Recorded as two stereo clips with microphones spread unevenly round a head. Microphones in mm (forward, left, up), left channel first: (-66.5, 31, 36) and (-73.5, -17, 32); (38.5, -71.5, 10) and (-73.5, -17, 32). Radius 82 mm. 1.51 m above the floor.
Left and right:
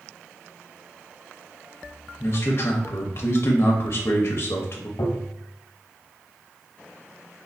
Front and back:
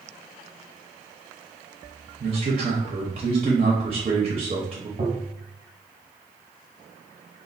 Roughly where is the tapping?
Left.